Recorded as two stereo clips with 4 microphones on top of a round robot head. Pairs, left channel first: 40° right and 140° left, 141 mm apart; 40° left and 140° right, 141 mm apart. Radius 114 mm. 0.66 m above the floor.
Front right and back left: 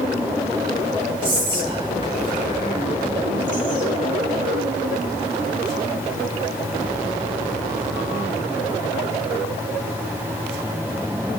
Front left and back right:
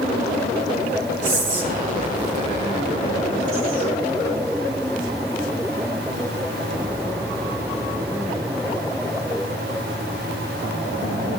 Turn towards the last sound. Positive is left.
turn(degrees=-170)